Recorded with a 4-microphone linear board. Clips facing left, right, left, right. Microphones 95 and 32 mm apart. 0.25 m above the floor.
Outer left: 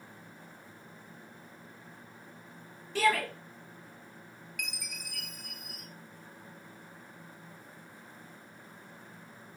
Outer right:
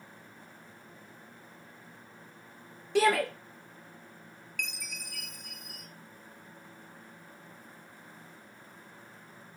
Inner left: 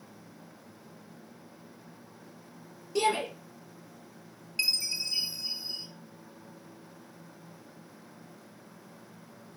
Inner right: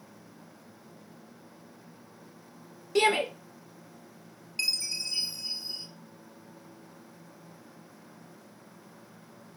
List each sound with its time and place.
3.0 s a shout: 75° right (ahead or behind), 4 m
4.6 s a chime: 10° left (ahead or behind), 1.9 m